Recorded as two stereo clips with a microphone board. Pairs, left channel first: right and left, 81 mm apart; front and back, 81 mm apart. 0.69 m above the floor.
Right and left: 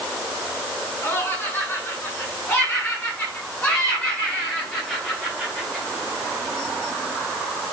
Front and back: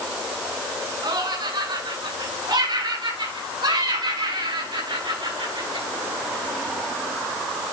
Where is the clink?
I don't hear a clink.